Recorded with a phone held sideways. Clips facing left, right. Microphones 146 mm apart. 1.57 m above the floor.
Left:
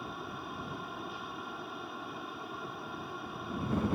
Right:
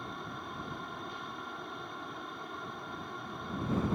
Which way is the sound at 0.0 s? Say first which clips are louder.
Left 1 dB; 5° left (ahead or behind).